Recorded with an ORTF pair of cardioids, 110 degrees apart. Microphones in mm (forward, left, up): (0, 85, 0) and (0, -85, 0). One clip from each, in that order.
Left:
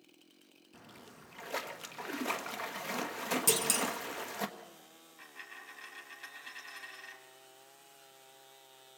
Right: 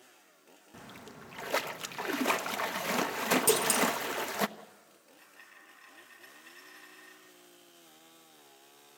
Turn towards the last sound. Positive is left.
turn(degrees=45)